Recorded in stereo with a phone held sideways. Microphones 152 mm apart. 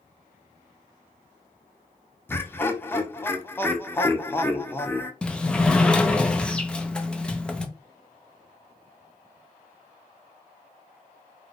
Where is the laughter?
15° left (ahead or behind), 0.5 m.